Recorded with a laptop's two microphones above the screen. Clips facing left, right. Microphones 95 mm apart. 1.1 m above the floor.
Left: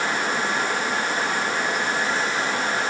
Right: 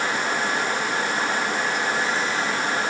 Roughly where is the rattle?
I don't hear a rattle.